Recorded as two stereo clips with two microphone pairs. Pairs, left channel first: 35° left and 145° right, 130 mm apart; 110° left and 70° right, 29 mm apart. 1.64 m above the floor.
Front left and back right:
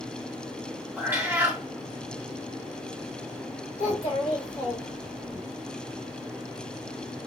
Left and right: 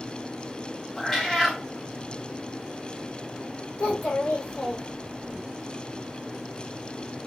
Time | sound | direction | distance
1.0 | a cat meowing | straight behind | 0.9 m
3.8 | a child speaking | 90° left | 1.6 m